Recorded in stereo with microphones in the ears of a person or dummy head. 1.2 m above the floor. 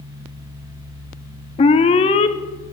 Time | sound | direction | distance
1.6 | an alarm | 35° left (ahead or behind) | 0.8 m